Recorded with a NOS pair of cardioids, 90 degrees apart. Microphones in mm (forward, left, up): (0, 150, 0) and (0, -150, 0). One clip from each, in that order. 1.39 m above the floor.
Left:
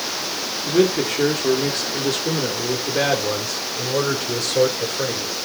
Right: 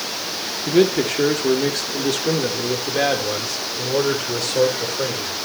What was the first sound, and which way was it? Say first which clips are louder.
A man speaking: right 1 dB; 20° right.